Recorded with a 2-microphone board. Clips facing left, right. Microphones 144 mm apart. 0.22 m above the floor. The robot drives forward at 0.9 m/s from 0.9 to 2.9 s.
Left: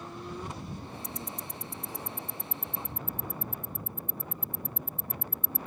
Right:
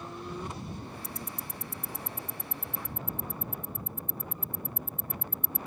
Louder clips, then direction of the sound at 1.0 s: Left 1 dB; 30° right (ahead or behind).